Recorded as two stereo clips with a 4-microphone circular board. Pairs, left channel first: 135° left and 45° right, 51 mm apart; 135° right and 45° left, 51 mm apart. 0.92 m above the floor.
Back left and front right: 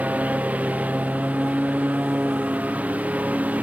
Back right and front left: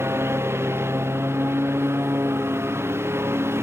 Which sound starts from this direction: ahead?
A lawn mower, at 0.0 s.